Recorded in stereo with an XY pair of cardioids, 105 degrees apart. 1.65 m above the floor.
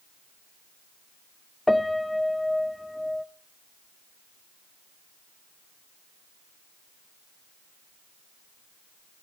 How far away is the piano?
About 0.7 m.